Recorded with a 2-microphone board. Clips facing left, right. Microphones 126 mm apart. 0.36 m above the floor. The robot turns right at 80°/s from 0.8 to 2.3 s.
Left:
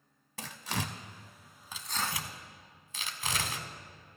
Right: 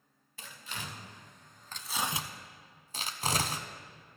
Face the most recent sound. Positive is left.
turn(degrees=-35)  # may be behind; listen again after turning